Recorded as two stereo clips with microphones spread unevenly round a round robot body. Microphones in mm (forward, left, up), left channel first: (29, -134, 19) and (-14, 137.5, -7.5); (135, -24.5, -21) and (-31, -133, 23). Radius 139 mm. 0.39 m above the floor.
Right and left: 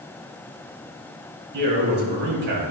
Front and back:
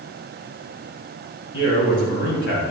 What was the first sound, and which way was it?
A man speaking, 55° left.